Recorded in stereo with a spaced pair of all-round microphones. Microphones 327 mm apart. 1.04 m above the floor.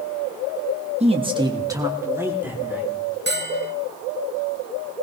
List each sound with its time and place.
1.0 s a man speaking: 20° right (ahead or behind), 1.5 m; by 2.9 s 5° right (ahead or behind), 4 m
3.3 s a bell: 35° right (ahead or behind), 1.0 m